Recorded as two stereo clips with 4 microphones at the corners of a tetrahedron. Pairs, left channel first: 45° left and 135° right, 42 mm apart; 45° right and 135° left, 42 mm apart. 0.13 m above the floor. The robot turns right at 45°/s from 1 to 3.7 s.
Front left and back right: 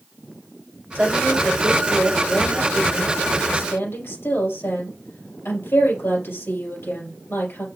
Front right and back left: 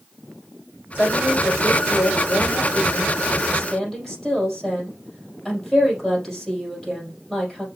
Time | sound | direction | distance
0.9 | a woman speaking | 85° right | 4 m